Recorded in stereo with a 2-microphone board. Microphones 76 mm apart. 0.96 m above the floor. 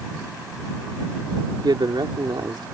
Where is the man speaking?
75° right (ahead or behind).